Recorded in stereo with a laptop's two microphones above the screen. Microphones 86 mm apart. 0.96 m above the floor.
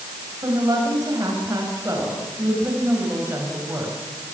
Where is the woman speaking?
45° right (ahead or behind), 6 m; by 4.0 s 25° right (ahead or behind), 6 m.